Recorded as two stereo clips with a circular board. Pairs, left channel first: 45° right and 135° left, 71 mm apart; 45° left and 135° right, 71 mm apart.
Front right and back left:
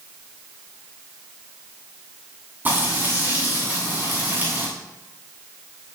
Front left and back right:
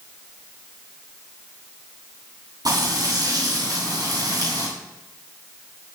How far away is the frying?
About 9.5 m.